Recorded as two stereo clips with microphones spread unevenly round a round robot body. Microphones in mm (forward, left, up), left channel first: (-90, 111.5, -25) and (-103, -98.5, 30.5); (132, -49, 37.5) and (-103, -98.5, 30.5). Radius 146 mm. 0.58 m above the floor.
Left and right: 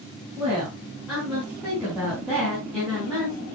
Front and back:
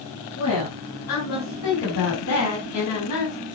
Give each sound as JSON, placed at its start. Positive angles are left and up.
{"t": 0.4, "sound": "a woman speaking", "azimuth_deg": -5, "distance_m": 7.5}